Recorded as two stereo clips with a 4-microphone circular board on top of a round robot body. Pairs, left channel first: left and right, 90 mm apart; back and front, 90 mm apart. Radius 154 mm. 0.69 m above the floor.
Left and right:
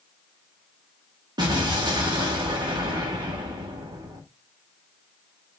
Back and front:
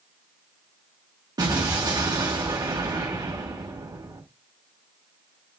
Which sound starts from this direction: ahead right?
An explosion, at 1.4 s.